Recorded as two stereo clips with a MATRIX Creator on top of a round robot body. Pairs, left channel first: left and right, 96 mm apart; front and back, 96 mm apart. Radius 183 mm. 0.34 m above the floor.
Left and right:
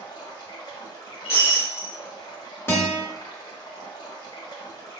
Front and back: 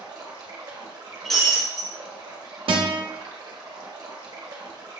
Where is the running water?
135° left, 1.2 m.